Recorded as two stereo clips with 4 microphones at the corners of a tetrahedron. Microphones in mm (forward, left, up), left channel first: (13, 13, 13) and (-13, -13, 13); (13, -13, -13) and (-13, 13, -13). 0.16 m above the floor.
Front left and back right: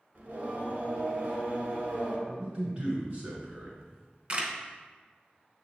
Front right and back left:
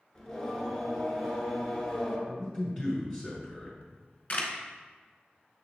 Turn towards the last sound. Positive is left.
turn(degrees=-85)